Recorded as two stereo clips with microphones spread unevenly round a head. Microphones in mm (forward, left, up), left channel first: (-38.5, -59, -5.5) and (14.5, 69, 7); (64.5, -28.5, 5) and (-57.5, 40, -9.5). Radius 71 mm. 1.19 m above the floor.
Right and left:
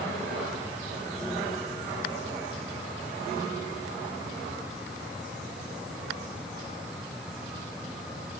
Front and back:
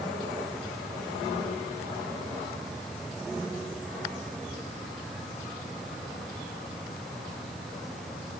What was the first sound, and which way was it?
Only background noise.